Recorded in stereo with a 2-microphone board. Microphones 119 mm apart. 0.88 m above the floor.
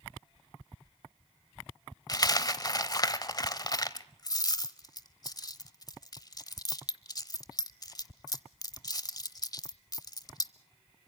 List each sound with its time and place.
2.1 s a dropped coin: 35° left (ahead or behind), 0.8 m